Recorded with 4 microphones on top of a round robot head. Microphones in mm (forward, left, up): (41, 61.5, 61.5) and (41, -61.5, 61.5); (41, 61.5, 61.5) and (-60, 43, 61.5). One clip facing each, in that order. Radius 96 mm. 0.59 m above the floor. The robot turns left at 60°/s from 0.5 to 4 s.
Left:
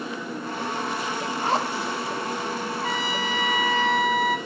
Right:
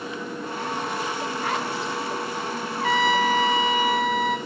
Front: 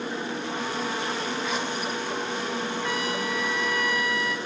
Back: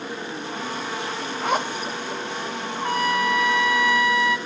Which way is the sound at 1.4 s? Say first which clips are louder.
Left 5 dB, back 4 dB; 160° left.